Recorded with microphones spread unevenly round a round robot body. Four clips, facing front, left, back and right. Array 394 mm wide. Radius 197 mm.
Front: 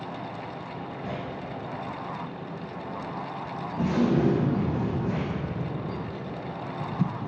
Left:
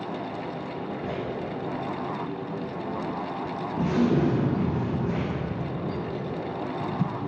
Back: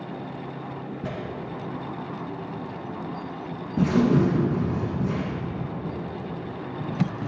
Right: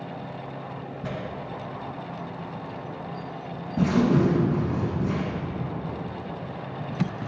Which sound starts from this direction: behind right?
Tearing paper, at 1.0 s.